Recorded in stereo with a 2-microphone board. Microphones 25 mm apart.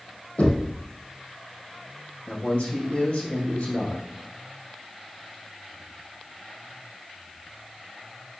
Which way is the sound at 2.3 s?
55° left (ahead or behind).